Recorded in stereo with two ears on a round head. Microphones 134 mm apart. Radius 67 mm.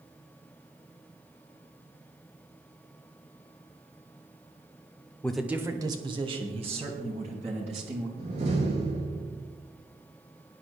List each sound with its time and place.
5.2 s a man speaking: 10° left (ahead or behind), 0.9 m; by 8.1 s 50° right (ahead or behind), 5 m
8.2 s a door slam: 45° right (ahead or behind), 5.5 m